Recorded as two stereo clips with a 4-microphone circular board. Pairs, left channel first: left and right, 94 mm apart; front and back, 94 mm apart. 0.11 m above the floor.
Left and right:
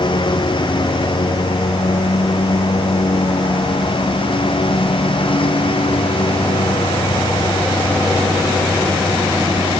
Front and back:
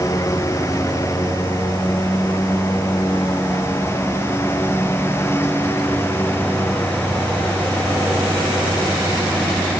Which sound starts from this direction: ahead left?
A lawn mower, at 0.0 s.